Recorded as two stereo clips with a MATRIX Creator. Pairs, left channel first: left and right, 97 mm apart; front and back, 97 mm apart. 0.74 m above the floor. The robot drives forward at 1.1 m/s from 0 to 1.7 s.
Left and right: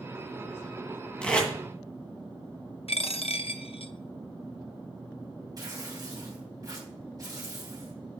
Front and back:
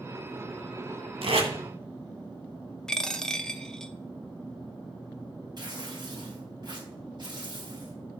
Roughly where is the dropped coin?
Left.